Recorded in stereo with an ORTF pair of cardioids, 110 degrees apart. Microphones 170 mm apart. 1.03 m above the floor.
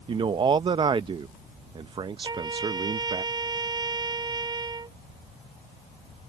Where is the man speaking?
30° right.